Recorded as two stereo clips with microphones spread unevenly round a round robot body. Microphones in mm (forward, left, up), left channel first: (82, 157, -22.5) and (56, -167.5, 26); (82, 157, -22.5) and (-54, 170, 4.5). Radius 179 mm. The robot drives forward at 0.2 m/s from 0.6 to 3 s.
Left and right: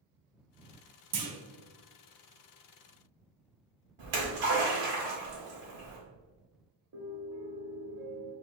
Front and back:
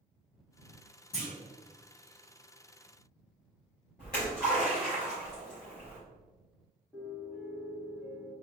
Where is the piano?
110° right, 0.8 m.